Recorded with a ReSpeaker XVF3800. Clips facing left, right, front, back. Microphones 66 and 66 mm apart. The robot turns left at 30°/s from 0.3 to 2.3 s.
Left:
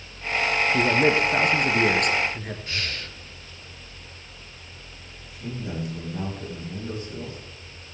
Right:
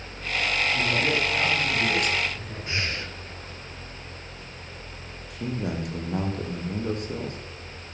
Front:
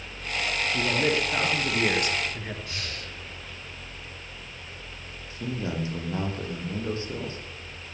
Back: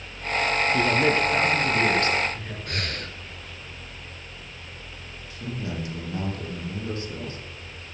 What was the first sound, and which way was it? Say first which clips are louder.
A man speaking: left 5 dB, back 2 dB; 110° left.